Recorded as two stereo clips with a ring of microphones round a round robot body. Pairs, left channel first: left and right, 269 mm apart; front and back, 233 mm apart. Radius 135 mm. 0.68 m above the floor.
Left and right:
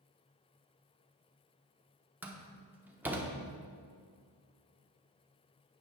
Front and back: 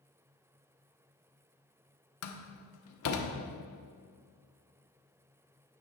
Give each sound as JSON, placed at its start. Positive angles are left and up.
{"t": 2.2, "sound": "a door slam", "azimuth_deg": -5, "distance_m": 1.1}